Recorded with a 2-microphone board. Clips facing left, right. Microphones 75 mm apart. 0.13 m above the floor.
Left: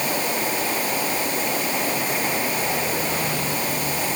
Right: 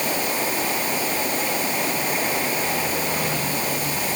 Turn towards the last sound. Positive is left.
No sound to turn to.